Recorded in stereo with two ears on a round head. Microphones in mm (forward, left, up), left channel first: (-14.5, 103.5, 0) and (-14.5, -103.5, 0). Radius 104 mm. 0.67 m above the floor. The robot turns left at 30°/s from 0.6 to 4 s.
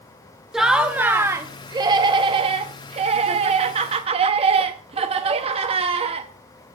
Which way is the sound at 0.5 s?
Centre (ahead or behind).